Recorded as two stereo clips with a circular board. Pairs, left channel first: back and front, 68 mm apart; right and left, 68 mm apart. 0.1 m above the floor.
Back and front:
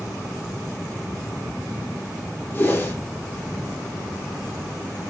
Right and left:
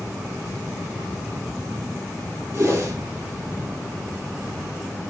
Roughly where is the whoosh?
Behind left.